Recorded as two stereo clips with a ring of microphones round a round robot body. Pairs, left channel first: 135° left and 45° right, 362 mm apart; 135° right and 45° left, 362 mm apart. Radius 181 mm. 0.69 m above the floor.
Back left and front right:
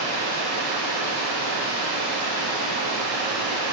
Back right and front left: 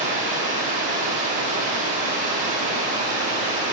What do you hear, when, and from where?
0.0 s running water: 115° left, 1.5 m